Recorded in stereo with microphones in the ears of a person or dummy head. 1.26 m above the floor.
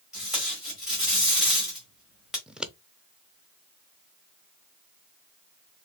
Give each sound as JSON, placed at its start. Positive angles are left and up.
{"t": 0.1, "sound": "tape being pulled", "side_deg": -5, "distance_m": 2.0}
{"t": 2.5, "sound": "scissors", "side_deg": -5, "distance_m": 0.5}